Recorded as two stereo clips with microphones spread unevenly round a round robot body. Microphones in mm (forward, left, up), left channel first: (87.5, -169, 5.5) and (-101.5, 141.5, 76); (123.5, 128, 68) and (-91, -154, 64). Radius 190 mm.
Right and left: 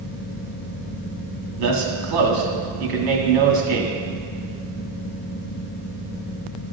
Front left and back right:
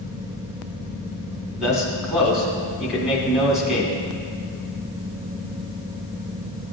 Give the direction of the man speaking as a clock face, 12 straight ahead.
7 o'clock.